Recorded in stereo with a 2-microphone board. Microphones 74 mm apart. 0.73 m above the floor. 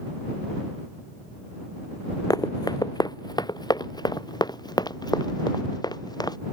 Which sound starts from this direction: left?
Running footsteps, at 2.3 s.